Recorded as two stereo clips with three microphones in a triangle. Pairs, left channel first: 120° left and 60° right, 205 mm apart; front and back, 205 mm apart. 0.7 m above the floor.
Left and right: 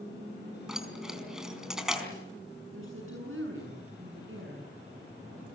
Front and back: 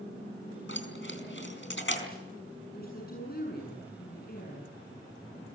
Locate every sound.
0.7 s keys jangling: 30° left, 4.5 m
2.7 s a woman speaking: 45° right, 7.5 m